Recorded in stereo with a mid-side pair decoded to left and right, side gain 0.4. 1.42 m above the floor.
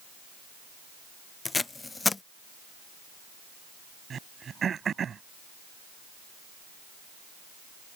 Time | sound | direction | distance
1.4 | tape being pulled | 25° left | ?
4.1 | throat clearing | 55° right | ?